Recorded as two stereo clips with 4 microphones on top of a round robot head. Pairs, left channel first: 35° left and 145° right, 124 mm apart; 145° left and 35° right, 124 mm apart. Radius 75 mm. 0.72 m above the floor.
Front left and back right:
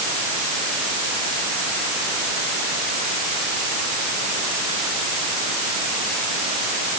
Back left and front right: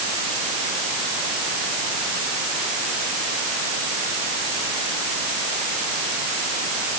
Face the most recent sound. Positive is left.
No sound to turn to.